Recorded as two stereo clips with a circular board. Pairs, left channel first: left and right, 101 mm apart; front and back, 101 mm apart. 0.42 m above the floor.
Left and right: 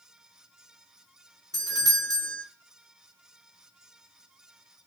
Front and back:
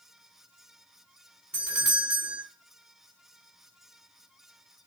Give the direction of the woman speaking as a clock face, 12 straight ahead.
No woman speaking in this recording.